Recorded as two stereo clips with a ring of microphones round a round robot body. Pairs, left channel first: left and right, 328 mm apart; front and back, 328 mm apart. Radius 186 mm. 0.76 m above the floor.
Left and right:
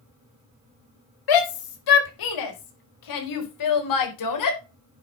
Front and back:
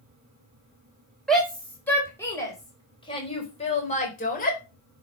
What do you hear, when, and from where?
1.3 s a shout: 90° left, 5 m; by 4.6 s 65° left, 4.5 m